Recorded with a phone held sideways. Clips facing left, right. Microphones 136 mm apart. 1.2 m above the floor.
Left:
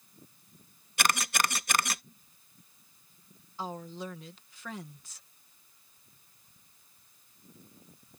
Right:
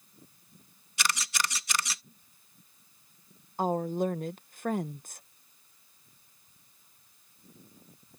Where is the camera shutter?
55° left (ahead or behind).